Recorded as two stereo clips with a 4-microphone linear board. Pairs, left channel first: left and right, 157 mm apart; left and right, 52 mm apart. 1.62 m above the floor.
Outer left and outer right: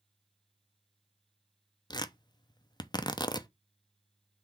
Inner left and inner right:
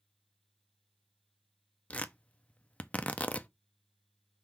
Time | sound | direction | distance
1.9 | tearing paper | 25° left (ahead or behind) | 0.7 m